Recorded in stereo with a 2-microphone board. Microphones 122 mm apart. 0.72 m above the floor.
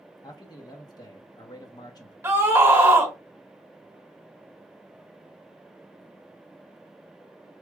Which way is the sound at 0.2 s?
35° left (ahead or behind).